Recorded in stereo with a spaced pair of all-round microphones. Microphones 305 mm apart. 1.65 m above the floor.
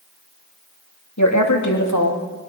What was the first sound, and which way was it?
A woman speaking, 65° left (ahead or behind).